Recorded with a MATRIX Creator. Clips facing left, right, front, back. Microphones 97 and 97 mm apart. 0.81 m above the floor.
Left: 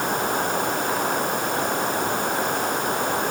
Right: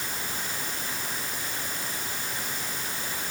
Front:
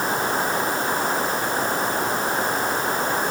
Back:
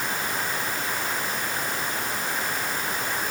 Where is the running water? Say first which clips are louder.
Left 13 dB, front 7 dB; 55° left.